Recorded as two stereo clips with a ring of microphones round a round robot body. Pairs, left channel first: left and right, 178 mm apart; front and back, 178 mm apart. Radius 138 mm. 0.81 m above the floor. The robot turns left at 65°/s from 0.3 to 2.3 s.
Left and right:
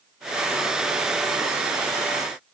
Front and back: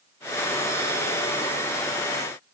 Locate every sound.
Only background noise.